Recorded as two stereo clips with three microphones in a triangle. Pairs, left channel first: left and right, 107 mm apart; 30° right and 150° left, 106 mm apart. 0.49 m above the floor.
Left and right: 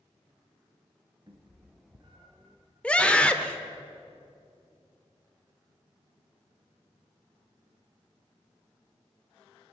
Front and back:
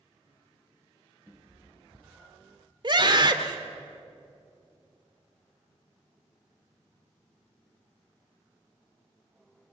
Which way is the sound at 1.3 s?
140° right.